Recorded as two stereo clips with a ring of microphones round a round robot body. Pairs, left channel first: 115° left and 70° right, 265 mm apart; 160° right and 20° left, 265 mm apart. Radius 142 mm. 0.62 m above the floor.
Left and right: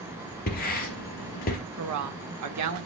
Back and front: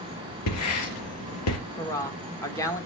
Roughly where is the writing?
Behind.